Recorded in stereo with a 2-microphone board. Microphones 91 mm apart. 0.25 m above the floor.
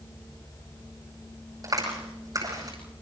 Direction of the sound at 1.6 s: 45° right (ahead or behind).